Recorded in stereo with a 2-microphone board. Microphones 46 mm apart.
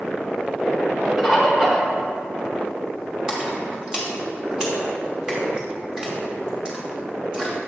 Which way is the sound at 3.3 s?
15° right (ahead or behind).